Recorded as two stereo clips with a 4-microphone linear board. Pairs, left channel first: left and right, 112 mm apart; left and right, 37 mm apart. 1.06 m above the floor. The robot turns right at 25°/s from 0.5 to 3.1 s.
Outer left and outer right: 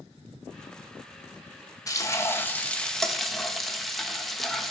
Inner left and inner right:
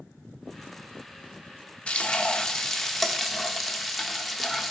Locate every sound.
1.9 s frying: 145° left, 1.1 m; by 4.7 s 175° left, 1.1 m